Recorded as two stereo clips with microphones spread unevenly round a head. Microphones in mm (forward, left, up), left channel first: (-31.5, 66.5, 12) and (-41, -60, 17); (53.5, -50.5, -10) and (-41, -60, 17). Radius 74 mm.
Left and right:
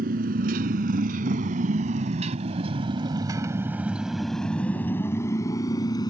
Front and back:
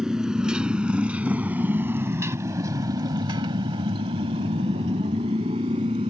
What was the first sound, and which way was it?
A motorcycle, 95° right.